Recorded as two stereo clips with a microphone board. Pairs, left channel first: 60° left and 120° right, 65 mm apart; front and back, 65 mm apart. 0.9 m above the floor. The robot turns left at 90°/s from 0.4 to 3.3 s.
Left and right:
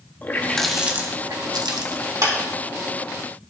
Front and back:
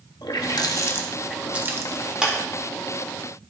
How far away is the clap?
About 2 m.